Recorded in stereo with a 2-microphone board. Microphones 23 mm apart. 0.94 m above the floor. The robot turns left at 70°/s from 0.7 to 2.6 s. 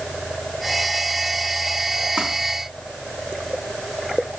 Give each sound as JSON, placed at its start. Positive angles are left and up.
{"t": 2.2, "sound": "crumpling", "side_deg": -50, "distance_m": 3.0}